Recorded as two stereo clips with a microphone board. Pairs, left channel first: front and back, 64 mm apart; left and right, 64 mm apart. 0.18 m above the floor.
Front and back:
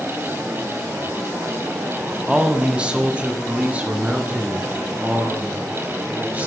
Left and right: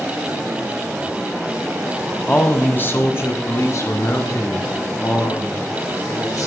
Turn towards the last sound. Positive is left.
turn(degrees=115)